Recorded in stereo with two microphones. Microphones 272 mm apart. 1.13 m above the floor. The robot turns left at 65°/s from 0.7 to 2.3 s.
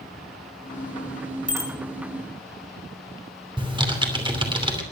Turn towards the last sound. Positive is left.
turn(degrees=-20)  # may be behind; listen again after turning